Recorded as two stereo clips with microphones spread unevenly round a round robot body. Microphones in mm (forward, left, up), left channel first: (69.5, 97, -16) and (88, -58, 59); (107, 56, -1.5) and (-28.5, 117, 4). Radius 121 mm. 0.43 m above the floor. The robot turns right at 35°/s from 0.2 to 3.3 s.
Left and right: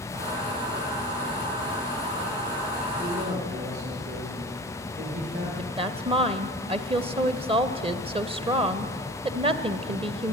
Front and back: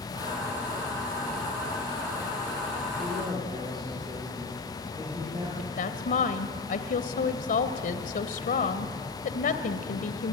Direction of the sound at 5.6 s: 15° right.